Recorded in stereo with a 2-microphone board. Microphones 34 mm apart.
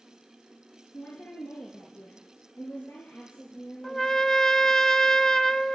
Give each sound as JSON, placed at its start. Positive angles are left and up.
{"t": 0.9, "sound": "a woman speaking", "side_deg": 70, "distance_m": 3.0}
{"t": 3.8, "sound": "a trumpet", "side_deg": 10, "distance_m": 0.6}